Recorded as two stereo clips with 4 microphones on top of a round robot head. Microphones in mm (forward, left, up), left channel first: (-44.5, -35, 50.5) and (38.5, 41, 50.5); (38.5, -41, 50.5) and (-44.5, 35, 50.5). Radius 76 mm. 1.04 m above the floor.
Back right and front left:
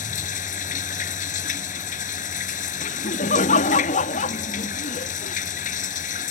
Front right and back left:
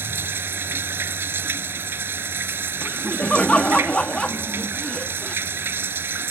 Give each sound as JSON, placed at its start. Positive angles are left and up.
{"t": 0.0, "sound": "running water", "azimuth_deg": -150}
{"t": 2.8, "sound": "laughter", "azimuth_deg": -125}